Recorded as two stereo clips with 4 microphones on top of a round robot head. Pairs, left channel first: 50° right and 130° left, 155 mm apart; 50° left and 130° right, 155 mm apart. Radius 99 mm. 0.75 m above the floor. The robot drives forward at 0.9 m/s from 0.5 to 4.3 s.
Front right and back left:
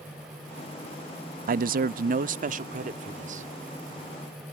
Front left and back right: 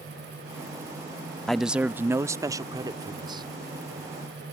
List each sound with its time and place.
1.5 s a man speaking: 140° left; by 3.5 s 170° left